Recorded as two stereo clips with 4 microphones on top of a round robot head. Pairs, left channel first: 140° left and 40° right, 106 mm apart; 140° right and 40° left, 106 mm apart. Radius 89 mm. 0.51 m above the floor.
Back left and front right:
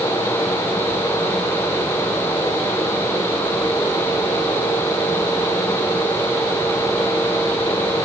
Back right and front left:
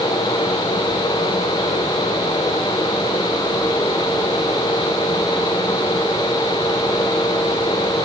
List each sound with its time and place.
Only background noise.